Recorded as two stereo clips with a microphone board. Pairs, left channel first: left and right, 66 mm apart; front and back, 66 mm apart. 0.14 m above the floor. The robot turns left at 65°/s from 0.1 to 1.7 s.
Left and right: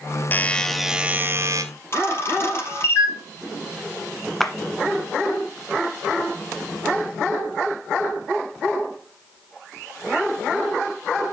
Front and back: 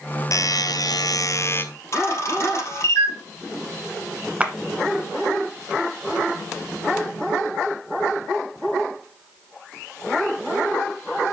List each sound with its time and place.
0.3 s a buzzer: 30° left, 0.8 m; by 1.6 s 60° right, 0.8 m
1.9 s a camera shutter: 40° left, 2.5 m
4.4 s a clap: 170° left, 1.0 m